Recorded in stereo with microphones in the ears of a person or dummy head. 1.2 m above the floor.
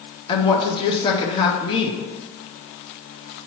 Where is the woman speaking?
25° left (ahead or behind), 0.7 m.